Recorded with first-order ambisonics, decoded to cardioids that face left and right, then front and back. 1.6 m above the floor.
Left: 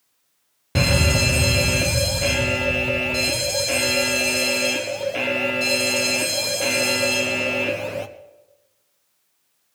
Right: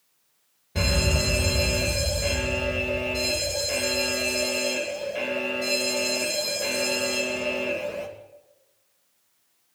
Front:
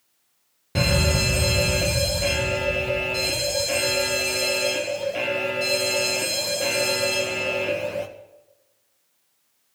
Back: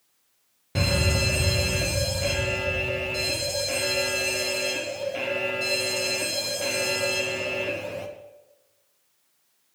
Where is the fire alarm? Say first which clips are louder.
Left 5 dB, front 3 dB; 80° left, 1.3 m.